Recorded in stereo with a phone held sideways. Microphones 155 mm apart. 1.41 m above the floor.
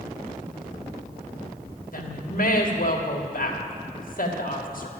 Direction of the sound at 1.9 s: 65° left (ahead or behind).